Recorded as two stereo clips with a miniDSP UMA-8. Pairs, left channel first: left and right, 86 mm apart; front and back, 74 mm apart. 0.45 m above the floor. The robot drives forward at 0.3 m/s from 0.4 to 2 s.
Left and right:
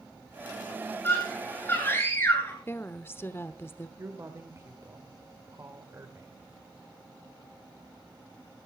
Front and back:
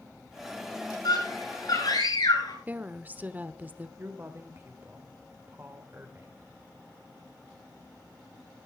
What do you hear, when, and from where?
1.0 s a scream: 25° left, 8 m
2.7 s a woman speaking: 130° left, 0.9 m
4.0 s a woman speaking: 135° right, 1.8 m